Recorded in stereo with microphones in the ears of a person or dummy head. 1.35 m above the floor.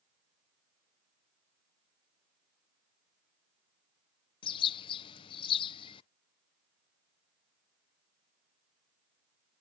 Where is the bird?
30° left (ahead or behind).